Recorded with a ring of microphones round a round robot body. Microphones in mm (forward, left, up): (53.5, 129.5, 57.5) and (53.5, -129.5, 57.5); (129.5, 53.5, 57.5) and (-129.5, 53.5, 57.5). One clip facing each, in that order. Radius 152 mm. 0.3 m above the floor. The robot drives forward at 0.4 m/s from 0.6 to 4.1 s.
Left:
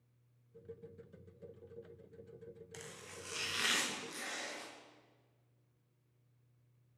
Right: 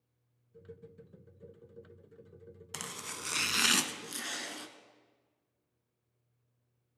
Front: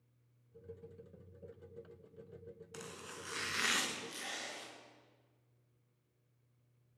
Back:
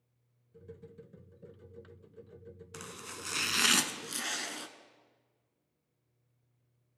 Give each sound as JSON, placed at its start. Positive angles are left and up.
{"t": 2.7, "sound": "chopping", "azimuth_deg": -100, "distance_m": 0.5}